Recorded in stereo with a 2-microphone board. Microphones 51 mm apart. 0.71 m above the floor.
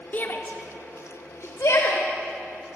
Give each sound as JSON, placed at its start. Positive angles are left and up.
{"t": 0.1, "sound": "a shout", "side_deg": 40, "distance_m": 1.5}